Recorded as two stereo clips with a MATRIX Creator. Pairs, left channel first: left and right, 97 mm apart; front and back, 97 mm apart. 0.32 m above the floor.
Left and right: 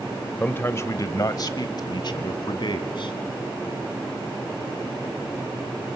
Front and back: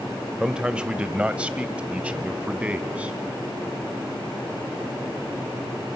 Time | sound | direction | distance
0.4 | a man speaking | 115° left | 0.9 m